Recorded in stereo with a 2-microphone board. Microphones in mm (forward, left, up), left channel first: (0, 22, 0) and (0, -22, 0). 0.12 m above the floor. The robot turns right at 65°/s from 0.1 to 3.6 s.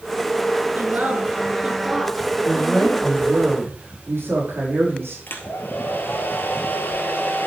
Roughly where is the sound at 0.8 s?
Right.